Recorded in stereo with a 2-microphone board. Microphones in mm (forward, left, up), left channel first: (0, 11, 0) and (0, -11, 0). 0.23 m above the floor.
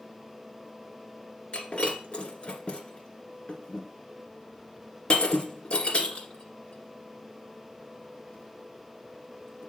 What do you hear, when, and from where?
1.5 s breaking glass: 55° left (ahead or behind), 1.9 m